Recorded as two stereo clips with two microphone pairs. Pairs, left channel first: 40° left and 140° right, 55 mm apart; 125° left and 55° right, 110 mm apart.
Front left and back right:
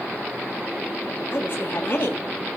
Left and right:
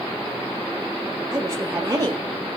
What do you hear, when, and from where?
1.3 s a woman speaking: straight ahead, 1.5 m